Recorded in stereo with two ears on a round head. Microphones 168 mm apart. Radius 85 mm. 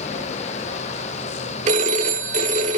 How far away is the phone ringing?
About 1.3 m.